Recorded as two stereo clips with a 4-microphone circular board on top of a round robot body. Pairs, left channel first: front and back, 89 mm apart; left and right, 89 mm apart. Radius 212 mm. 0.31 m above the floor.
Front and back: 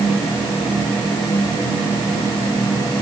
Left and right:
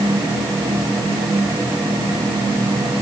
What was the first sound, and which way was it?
Only background noise.